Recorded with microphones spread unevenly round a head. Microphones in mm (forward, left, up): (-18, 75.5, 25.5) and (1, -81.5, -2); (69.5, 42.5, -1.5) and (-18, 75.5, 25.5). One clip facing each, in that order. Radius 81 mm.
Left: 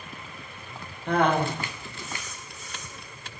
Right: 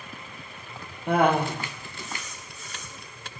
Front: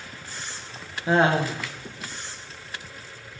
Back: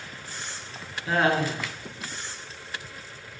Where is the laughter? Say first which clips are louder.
Right 1 dB, front 3 dB; 20° right, 0.7 m.